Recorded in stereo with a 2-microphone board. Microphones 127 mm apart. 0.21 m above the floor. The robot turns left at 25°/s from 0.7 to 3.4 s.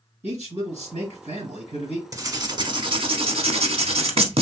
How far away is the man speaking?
About 2.5 m.